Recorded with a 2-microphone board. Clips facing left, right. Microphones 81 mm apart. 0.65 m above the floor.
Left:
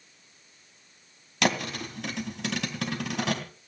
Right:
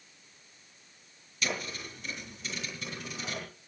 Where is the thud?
80° left, 2.5 m.